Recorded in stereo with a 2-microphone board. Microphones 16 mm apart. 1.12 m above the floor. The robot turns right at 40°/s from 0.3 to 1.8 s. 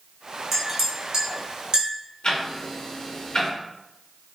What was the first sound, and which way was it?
A clink, 5° right (ahead or behind).